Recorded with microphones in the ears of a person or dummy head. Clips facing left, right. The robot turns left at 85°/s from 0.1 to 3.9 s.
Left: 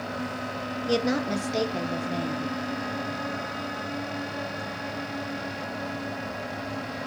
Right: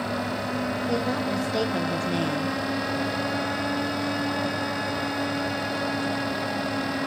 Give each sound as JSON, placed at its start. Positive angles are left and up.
{"t": 0.9, "sound": "a woman speaking", "azimuth_deg": 60, "distance_m": 0.7}